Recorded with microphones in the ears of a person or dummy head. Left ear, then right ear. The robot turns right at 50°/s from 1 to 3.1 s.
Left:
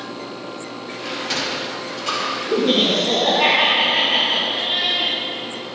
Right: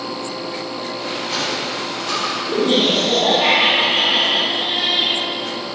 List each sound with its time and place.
1.1 s a sliding door: 70° left (ahead or behind), 2.5 m; by 2.4 s 40° left (ahead or behind), 2.5 m
2.5 s laughter: 130° left, 2.0 m; by 5.1 s 160° left, 2.0 m